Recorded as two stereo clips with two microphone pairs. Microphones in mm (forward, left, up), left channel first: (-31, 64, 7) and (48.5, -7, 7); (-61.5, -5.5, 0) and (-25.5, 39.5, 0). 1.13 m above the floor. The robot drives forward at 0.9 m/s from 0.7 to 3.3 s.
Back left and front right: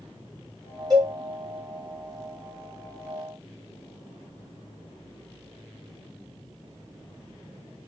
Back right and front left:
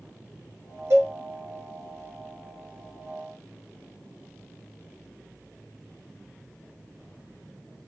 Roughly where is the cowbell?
Ahead.